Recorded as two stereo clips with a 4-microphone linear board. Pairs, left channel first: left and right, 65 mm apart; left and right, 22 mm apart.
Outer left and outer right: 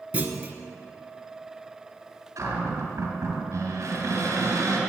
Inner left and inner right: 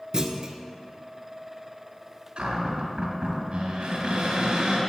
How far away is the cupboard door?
About 3 m.